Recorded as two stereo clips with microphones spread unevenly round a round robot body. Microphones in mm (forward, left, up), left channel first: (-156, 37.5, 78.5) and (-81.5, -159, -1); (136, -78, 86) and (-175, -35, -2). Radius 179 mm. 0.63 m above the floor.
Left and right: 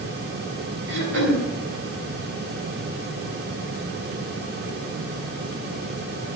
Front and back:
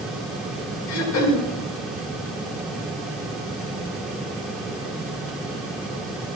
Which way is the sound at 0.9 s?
55° right.